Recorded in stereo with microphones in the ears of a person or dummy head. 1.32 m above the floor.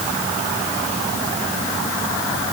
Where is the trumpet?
I don't hear a trumpet.